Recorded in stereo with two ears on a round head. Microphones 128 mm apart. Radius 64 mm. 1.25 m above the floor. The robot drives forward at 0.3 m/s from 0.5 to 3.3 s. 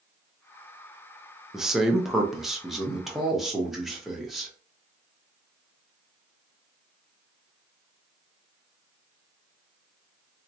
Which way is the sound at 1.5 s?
5° right (ahead or behind).